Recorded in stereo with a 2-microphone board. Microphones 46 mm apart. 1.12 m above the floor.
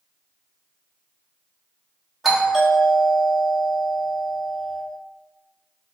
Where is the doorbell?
Centre (ahead or behind), 0.9 m.